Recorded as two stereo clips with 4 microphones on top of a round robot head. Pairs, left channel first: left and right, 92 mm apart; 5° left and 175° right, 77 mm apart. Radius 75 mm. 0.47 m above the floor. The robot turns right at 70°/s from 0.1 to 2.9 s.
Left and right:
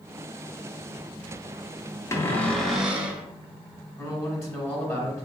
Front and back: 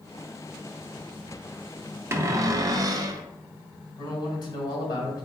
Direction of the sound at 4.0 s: 35° left.